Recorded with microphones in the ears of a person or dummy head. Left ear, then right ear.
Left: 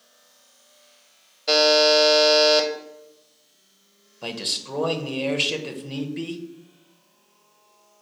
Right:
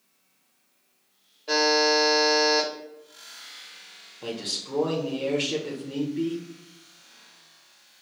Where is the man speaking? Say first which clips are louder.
Left 4 dB; 25° left (ahead or behind), 0.8 m.